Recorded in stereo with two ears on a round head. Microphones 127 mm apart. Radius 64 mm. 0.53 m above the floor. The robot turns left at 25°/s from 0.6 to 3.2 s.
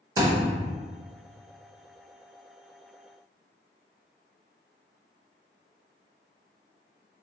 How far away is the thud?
About 1.0 m.